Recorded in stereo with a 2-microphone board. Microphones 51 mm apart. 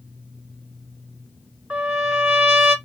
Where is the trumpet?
25° right (ahead or behind), 1.3 m.